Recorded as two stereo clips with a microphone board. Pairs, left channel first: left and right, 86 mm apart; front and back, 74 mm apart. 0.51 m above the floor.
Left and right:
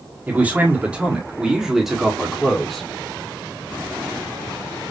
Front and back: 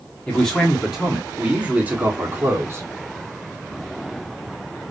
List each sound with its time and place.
0.3 s a man speaking: 60° right, 1.4 m; by 2.8 s 175° left, 1.6 m